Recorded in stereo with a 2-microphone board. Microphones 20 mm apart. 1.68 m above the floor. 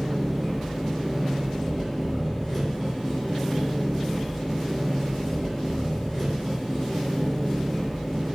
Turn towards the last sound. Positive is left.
turn(degrees=20)  # may be behind; listen again after turning